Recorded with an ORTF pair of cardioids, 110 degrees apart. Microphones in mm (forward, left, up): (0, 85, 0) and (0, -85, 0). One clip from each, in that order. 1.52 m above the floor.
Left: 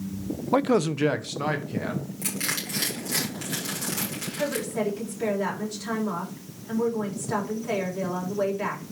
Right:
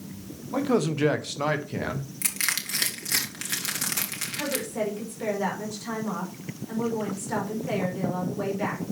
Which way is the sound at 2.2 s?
50° right.